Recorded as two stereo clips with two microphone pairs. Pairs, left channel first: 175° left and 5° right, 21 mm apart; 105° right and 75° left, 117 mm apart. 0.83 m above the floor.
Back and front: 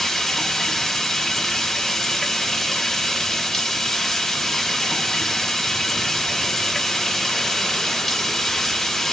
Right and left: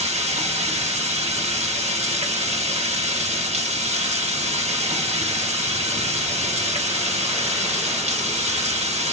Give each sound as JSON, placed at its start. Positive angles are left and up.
{"t": 0.0, "sound": "running water", "azimuth_deg": 100, "distance_m": 0.7}